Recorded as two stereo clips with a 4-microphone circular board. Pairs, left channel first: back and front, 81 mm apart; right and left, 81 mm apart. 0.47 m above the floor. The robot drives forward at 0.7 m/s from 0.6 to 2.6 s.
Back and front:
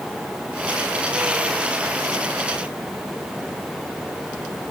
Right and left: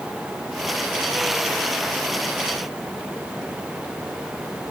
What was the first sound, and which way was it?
Only background noise.